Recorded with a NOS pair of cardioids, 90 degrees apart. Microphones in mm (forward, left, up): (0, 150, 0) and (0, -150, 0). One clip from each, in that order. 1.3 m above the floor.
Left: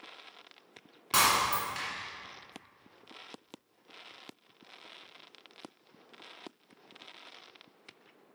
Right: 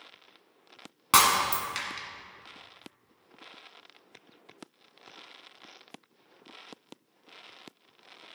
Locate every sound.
1.1 s breaking glass: 60° right, 1.6 m